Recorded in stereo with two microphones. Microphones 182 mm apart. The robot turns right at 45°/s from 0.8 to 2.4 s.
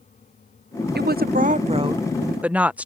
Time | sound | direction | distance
0.9 | a woman speaking | 75° right | ?